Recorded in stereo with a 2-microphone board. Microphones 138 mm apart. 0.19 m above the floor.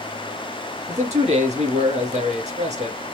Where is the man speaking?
55° right (ahead or behind), 2.5 m.